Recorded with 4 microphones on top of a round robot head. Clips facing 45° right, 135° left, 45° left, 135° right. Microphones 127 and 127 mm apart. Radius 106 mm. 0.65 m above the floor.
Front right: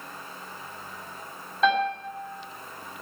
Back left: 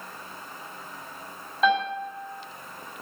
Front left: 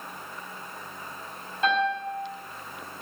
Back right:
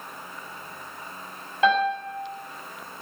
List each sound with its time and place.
1.6 s a piano: 135° right, 6 m